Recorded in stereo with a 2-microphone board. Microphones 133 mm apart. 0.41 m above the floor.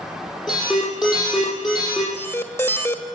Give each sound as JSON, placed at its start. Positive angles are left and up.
{"t": 0.5, "sound": "an alarm", "side_deg": -5, "distance_m": 9.5}
{"t": 2.1, "sound": "an alarm", "side_deg": 20, "distance_m": 1.4}